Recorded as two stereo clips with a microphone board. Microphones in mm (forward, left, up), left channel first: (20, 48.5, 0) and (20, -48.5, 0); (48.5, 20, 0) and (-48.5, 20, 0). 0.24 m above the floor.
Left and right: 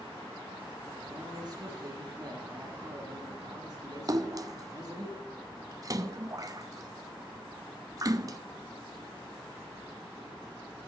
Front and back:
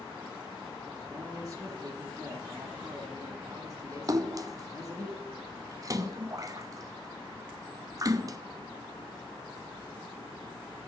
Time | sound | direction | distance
1.1 | a man speaking | 130° right | 3.5 m
4.1 | a splash | 135° right | 0.5 m